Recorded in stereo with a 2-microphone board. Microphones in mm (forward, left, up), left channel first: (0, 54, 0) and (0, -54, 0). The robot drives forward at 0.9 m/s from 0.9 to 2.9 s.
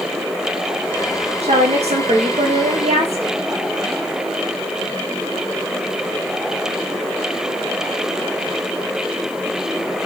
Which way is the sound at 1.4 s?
80° right.